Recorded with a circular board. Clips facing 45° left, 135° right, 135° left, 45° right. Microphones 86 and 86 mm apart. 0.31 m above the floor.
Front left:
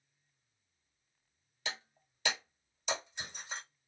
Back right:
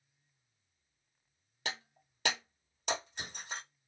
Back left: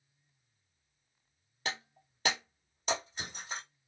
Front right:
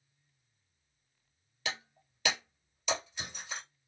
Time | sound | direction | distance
1.6 | breaking glass | 170° right | 1.4 m